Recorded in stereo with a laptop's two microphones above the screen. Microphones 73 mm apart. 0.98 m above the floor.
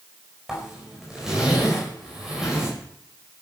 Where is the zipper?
5° right (ahead or behind), 4.5 m.